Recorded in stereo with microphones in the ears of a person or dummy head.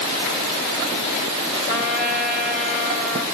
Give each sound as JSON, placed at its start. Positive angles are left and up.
{"t": 1.7, "sound": "a trumpet", "side_deg": -5, "distance_m": 1.3}